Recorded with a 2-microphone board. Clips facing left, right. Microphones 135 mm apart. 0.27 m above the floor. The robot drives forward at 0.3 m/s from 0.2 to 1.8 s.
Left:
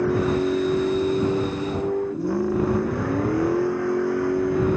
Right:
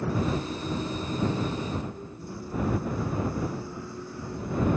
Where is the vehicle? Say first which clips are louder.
Left 8 dB; 90° left; by 4.8 s 85° left.